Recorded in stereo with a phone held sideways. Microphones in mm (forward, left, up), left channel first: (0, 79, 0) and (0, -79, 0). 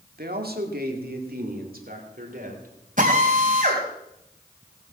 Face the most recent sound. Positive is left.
turn(degrees=-55)  # may be behind; listen again after turning